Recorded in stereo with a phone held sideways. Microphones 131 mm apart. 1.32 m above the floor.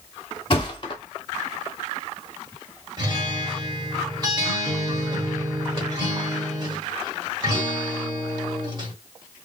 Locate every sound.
0.5 s a thud: 40° left (ahead or behind), 1.1 m
3.0 s a guitar: 30° right (ahead or behind), 1.5 m